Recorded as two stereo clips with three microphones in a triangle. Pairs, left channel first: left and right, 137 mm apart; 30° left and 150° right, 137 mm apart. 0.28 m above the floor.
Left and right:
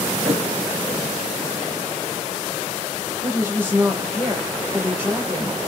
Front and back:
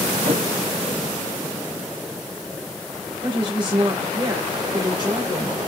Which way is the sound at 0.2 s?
165° right.